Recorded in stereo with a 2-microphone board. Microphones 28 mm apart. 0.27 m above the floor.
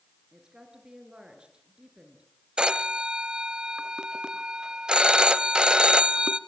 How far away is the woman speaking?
About 4.5 m.